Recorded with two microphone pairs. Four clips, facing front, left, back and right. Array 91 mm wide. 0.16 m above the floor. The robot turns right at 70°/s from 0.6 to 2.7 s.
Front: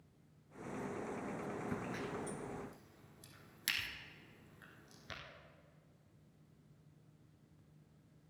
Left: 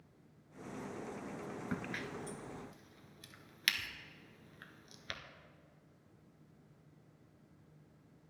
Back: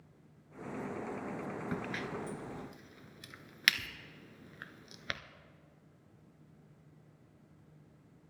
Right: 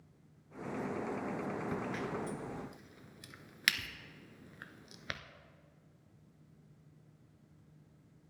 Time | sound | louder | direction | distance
1.7 | a crack | right 4 dB, back 4 dB | 140° left | 0.7 m